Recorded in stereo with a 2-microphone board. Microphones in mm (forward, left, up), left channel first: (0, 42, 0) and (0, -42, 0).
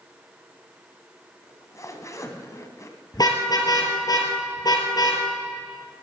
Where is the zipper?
40° left (ahead or behind), 1.6 m.